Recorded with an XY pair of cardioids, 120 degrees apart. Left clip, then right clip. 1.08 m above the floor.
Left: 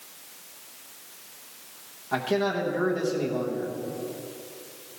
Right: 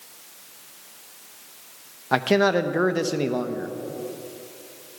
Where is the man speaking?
60° right, 0.8 m.